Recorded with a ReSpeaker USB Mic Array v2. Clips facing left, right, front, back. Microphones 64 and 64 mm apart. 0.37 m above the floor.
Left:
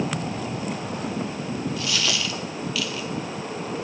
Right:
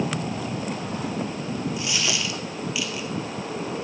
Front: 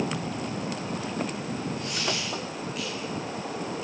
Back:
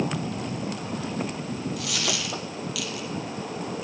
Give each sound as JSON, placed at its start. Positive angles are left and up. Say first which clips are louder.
{"t": 1.8, "sound": "a dropped coin", "louder": "left 1 dB, back 1 dB", "azimuth_deg": -160, "distance_m": 3.0}